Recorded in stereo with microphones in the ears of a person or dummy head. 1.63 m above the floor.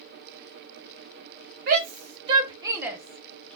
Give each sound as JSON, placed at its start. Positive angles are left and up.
{"t": 1.7, "sound": "a shout", "side_deg": -55, "distance_m": 1.1}